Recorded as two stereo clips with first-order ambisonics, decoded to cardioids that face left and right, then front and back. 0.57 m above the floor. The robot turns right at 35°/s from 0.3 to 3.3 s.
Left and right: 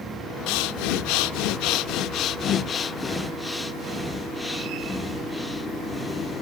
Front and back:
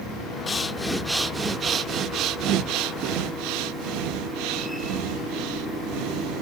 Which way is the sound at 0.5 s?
75° left.